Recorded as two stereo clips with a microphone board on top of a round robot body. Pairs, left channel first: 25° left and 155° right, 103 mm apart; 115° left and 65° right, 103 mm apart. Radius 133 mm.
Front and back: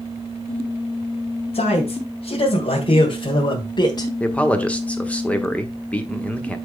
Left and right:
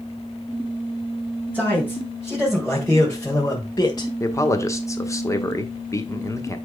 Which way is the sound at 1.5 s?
10° left.